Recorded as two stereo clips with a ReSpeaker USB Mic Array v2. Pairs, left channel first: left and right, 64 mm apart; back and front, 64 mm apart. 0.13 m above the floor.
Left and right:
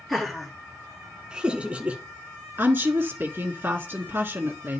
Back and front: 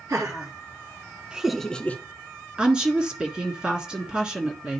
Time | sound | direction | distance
0.1 | laughter | straight ahead | 2.0 m
2.6 | a woman speaking | 65° right | 1.5 m